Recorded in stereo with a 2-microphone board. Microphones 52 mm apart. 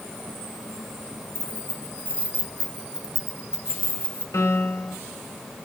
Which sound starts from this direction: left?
A piano, at 4.3 s.